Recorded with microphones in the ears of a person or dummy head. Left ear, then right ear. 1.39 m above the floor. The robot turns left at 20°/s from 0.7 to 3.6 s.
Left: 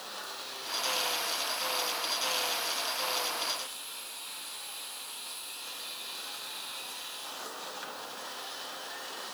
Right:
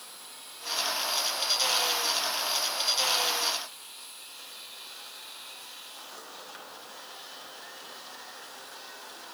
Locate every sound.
Only background noise.